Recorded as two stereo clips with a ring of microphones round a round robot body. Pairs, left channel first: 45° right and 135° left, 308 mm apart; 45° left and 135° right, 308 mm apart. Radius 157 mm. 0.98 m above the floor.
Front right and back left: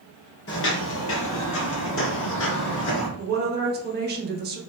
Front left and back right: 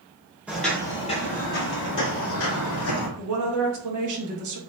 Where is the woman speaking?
165° right, 1.2 m.